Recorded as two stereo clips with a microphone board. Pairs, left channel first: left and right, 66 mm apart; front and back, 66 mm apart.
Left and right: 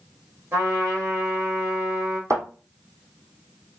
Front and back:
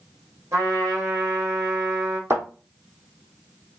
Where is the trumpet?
135° right, 2.5 m.